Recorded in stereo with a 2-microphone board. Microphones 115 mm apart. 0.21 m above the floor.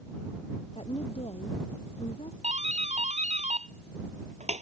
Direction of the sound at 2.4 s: 75° right (ahead or behind).